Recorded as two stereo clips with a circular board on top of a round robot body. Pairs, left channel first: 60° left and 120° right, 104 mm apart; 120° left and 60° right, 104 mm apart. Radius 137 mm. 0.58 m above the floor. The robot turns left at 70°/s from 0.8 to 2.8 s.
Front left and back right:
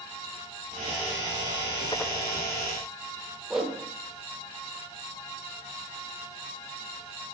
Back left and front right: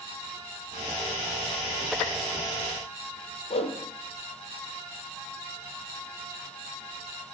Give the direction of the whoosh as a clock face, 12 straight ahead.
7 o'clock.